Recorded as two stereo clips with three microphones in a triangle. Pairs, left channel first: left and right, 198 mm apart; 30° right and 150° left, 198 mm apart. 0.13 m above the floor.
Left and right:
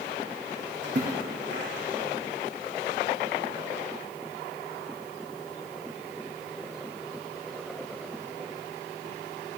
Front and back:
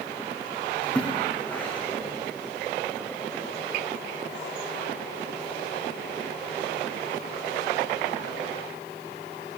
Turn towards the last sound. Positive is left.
turn(degrees=-115)